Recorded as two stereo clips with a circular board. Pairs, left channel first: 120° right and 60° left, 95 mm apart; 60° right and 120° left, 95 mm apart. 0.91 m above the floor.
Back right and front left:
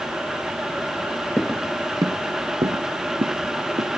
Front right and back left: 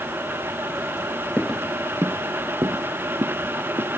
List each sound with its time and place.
1.4 s footsteps: 125° right; by 3.9 s 75° left